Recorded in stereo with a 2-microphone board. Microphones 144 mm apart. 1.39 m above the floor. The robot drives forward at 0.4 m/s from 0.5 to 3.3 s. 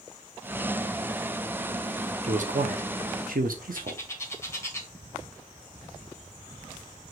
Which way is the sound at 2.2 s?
60° right (ahead or behind).